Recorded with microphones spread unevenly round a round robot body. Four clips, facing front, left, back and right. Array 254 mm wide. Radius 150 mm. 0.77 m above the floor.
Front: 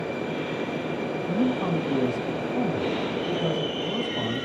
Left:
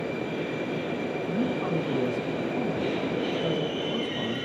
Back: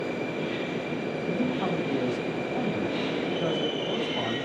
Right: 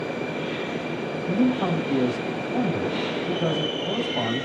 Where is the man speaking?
85° right, 5 m.